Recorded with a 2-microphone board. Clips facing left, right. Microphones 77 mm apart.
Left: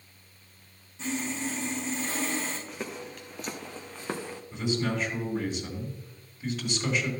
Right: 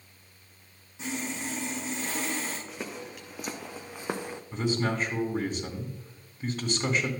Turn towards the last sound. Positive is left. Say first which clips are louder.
# right 1 dB
turn(degrees=-45)  # may be behind; listen again after turning